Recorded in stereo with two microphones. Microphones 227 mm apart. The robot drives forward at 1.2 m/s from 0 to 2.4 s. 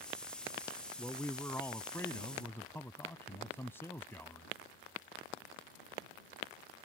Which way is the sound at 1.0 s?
5° left (ahead or behind).